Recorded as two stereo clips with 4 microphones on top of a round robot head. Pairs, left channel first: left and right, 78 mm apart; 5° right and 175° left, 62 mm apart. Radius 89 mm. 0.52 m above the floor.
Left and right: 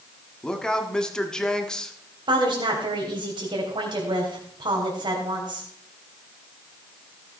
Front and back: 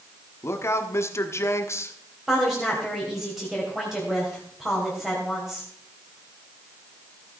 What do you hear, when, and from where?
0.4 s a man speaking: 10° left, 1.3 m
2.3 s a woman speaking: 100° right, 3 m